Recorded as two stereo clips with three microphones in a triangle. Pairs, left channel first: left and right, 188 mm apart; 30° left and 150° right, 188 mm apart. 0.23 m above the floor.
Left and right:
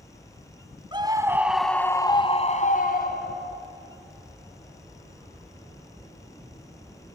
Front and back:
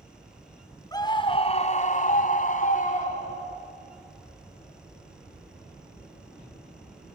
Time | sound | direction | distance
0.9 | a scream | 35° right | 1.9 m